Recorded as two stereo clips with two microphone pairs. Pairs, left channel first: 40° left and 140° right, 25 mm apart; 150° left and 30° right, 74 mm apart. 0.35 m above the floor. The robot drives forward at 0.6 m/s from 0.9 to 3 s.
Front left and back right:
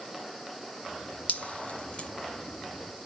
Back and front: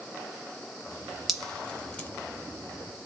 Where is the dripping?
60° left, 1.3 m; by 2.1 s 80° left, 1.1 m.